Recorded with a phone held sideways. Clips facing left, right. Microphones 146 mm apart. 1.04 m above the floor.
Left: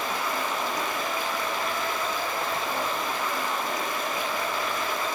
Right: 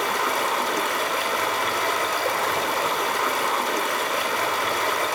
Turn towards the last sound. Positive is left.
turn(degrees=-80)